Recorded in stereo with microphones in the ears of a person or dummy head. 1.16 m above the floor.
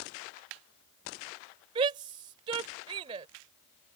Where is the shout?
30° right (ahead or behind).